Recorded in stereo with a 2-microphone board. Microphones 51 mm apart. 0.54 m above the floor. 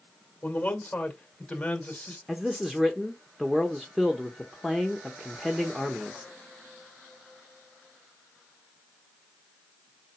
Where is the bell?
No bell in this recording.